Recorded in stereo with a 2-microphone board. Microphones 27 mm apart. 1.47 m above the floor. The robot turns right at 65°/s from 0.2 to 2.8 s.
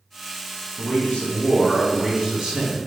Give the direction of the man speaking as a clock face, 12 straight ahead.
9 o'clock.